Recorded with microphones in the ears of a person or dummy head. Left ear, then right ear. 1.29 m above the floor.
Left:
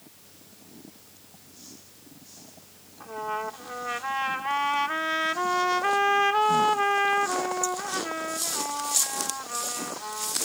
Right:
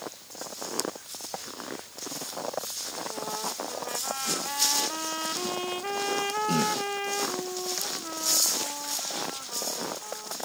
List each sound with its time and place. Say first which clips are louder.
3.0 s a trumpet: left 4 dB; 60° left (ahead or behind)